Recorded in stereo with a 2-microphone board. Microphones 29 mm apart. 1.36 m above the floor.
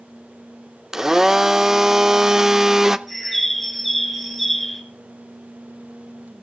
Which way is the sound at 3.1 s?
5° left (ahead or behind).